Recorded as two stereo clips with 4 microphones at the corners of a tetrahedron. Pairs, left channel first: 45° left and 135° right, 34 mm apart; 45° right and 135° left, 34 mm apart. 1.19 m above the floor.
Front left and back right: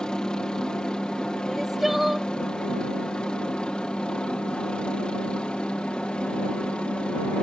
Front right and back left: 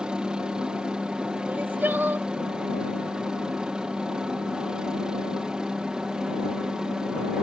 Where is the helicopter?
95° left; by 7.4 s 85° left.